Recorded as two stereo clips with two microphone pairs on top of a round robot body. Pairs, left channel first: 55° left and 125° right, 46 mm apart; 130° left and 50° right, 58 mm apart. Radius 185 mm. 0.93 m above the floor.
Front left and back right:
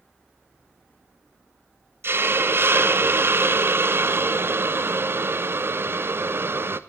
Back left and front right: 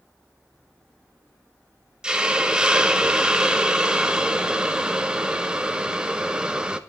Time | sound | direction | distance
2.0 | a hiss | 125° right | 1.5 m